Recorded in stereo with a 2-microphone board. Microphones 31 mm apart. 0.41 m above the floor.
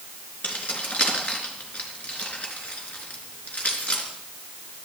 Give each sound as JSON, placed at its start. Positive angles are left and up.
{"t": 0.4, "sound": "keys jangling", "side_deg": 50, "distance_m": 4.0}